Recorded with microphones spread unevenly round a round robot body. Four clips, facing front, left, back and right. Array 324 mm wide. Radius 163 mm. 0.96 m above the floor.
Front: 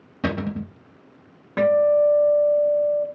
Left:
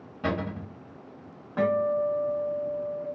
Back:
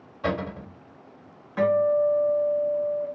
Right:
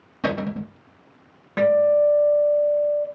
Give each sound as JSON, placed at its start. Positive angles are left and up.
{"t": 0.2, "sound": "a cupboard door", "azimuth_deg": -20, "distance_m": 1.0}
{"t": 1.6, "sound": "a guitar", "azimuth_deg": -30, "distance_m": 0.9}